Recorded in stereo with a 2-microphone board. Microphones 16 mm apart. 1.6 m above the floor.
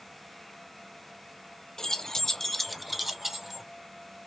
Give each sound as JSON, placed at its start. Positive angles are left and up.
{"t": 1.8, "sound": "keys jangling", "side_deg": 30, "distance_m": 0.7}